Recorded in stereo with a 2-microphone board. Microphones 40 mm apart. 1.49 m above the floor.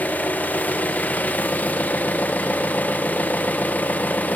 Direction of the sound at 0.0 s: 45° left (ahead or behind).